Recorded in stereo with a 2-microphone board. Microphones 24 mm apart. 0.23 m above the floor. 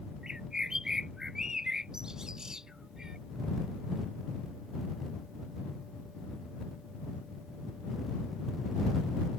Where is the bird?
30° right (ahead or behind).